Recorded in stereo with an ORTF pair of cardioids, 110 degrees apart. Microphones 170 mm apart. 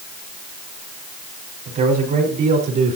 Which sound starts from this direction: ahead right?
A man speaking, at 1.6 s.